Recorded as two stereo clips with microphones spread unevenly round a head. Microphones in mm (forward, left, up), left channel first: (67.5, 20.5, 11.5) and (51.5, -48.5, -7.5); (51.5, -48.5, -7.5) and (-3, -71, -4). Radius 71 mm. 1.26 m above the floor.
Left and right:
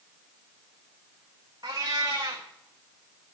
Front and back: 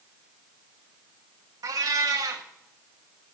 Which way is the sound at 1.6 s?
170° right.